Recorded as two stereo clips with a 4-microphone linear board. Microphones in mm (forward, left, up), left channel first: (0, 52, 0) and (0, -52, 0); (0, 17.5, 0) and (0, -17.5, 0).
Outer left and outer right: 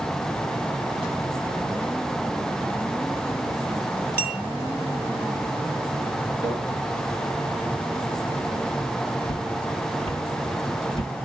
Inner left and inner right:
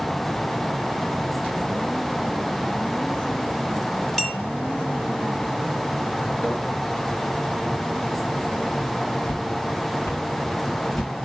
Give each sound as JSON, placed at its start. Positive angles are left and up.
{"t": 4.2, "sound": "a clink", "side_deg": 20, "distance_m": 2.5}
{"t": 6.4, "sound": "a microwave", "side_deg": 40, "distance_m": 3.5}
{"t": 9.2, "sound": "footsteps", "side_deg": 70, "distance_m": 1.5}